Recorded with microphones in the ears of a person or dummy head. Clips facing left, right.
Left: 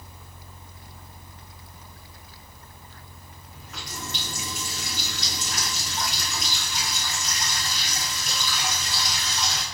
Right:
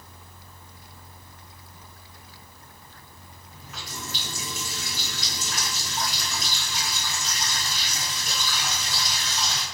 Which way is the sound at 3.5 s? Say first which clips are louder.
Left 1 dB; 5° right (ahead or behind).